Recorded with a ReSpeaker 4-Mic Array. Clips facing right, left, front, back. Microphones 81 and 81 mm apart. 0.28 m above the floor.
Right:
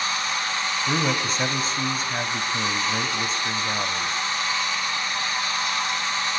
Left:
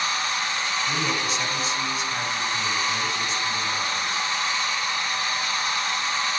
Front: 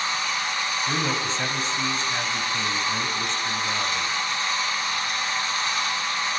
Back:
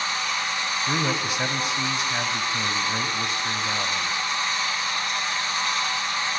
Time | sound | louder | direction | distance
0.9 | a man speaking | right 2 dB, back 2 dB | 110° right | 1.8 m